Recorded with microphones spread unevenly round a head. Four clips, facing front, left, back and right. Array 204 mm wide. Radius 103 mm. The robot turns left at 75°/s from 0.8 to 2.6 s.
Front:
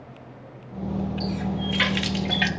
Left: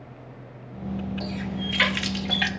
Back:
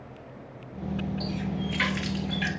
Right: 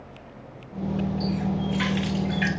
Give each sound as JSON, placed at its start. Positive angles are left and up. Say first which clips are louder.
{"t": 1.2, "sound": "a running tap", "louder": "right 5 dB, front 4 dB", "azimuth_deg": 115, "distance_m": 1.5}